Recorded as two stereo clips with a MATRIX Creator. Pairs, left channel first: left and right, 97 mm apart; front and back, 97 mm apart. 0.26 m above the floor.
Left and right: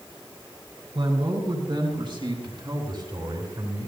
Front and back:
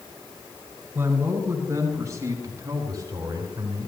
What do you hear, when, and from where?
0.9 s a man speaking: 115° right, 5 m; by 3.9 s 130° right, 6.5 m